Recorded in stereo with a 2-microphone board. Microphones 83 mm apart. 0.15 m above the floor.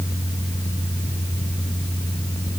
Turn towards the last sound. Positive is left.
No sound to turn to.